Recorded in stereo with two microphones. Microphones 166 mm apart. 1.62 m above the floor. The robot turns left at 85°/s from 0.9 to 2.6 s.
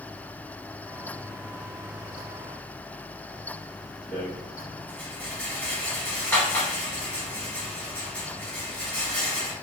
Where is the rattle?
10° left (ahead or behind), 1.1 m.